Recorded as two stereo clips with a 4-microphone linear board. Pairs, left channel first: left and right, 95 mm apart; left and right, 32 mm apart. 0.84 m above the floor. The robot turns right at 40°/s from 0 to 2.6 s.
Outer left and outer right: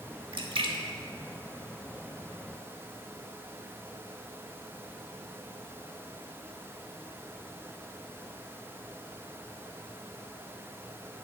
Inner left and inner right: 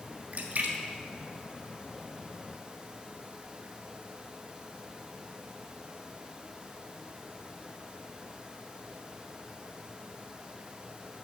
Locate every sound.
0.3 s a splash: 65° right (ahead or behind), 1.4 m; by 2.2 s 20° right (ahead or behind), 1.4 m